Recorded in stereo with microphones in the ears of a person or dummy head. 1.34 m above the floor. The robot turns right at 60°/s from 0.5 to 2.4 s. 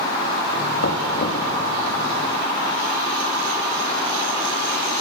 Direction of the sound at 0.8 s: 100° left.